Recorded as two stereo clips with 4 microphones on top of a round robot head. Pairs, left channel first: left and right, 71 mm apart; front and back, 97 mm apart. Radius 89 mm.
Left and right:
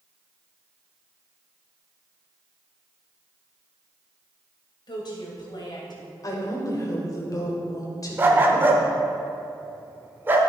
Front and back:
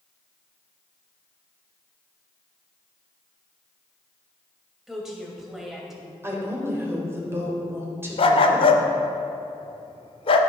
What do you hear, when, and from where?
4.9 s a woman speaking: 95° left, 2.5 m
6.2 s a woman speaking: 120° left, 2.5 m
8.2 s a dog barking: 25° right, 0.7 m